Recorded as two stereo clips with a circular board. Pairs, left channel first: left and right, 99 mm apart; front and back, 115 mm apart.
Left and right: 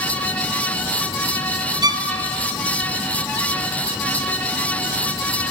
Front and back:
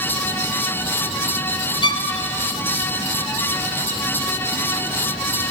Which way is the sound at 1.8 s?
45° right.